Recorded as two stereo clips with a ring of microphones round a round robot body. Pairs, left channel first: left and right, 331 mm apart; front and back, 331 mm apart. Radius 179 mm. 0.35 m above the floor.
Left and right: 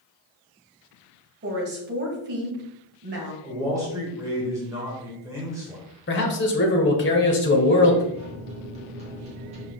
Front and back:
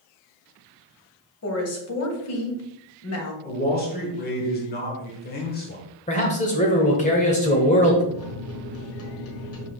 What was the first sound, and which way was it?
A woman speaking, 35° right.